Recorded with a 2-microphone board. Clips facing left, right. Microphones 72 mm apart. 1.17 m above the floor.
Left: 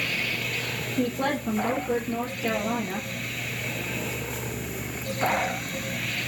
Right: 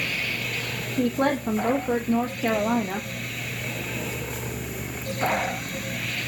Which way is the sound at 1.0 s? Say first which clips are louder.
Right 4 dB; 45° right (ahead or behind).